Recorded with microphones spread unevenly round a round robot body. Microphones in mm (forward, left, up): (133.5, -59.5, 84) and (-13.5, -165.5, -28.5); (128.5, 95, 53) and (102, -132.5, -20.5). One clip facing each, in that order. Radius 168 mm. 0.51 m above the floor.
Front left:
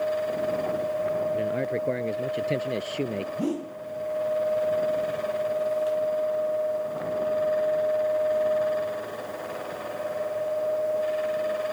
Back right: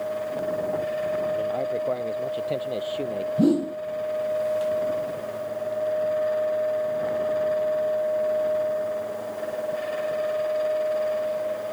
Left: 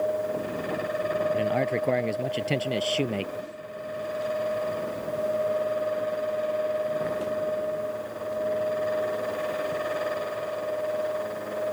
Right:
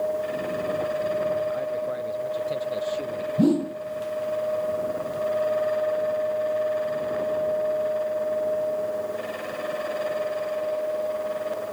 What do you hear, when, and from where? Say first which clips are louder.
1.3 s a man speaking: back right 1 dB, left 2 dB; 95° left; by 3.3 s 100° left
3.4 s a whoosh: back right 11 dB, right 19 dB; 105° right